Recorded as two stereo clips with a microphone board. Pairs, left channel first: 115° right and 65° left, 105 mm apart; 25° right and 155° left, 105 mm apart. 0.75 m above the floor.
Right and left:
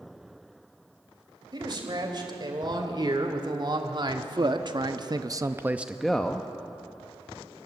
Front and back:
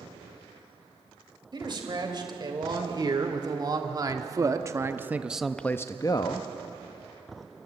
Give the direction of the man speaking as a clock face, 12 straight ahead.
8 o'clock.